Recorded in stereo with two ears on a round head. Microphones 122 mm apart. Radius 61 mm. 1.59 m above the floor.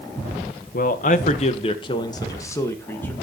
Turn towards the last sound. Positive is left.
turn(degrees=15)  # may be behind; listen again after turning